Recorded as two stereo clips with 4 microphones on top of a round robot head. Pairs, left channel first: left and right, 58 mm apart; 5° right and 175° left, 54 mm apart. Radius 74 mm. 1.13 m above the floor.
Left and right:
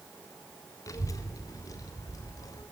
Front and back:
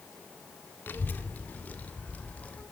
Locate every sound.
0.9 s a child speaking: 50° left, 1.6 m; by 2.6 s 60° left, 3 m